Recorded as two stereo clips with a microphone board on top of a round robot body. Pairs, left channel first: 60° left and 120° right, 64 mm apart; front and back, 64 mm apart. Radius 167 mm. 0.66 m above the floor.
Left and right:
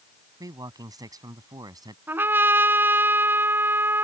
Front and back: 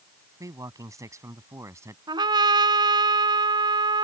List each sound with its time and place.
0.4 s a man speaking: 145° right; by 2.0 s 135° right
2.1 s a trumpet: straight behind